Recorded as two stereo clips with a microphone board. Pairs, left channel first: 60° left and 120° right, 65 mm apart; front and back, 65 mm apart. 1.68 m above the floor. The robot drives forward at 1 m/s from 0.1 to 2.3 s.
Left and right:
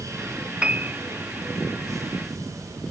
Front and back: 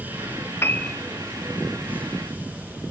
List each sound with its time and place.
0.6 s a piano: 50° right, 0.7 m; by 1.0 s 85° right, 0.6 m